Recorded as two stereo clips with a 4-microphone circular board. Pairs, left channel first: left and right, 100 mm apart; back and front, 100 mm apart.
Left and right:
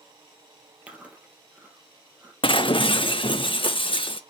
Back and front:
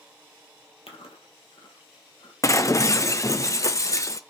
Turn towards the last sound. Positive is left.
turn(degrees=125)